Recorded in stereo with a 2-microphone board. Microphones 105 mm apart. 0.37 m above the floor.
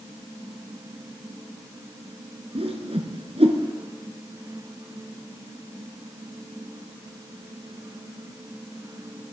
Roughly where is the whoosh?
Right.